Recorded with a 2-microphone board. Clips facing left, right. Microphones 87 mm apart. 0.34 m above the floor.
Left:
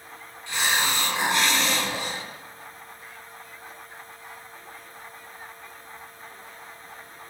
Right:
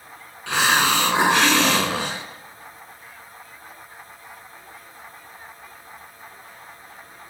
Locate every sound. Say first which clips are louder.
0.5 s a hiss: right 7 dB; 75° right (ahead or behind), 0.8 m